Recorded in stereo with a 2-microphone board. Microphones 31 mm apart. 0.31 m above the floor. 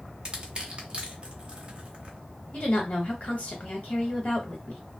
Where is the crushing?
35° right (ahead or behind), 0.8 m.